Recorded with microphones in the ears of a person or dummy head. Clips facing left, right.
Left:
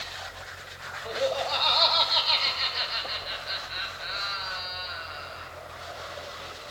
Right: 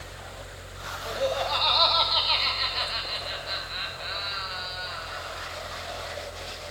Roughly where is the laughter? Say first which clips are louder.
Even; centre.